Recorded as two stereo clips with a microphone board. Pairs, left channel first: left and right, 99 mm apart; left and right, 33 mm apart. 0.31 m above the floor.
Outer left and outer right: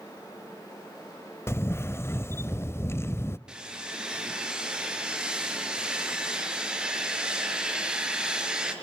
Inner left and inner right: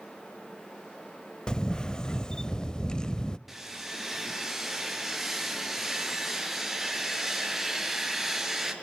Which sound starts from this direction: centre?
Sawing, at 3.5 s.